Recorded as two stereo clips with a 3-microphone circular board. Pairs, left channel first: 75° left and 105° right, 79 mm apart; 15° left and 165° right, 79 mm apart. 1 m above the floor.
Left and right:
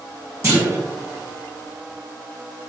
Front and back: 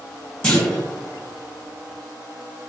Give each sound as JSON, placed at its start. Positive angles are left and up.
{"t": 0.4, "sound": "a clunk", "azimuth_deg": -65, "distance_m": 1.4}